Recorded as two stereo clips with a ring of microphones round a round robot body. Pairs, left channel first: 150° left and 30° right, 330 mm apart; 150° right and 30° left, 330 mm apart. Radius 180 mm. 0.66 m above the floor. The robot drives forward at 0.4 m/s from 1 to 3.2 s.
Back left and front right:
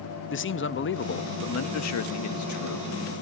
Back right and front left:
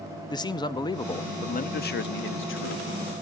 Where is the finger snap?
I don't hear a finger snap.